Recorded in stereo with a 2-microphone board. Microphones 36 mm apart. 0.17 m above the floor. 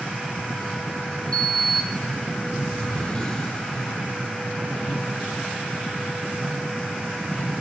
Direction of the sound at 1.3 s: 25° left (ahead or behind).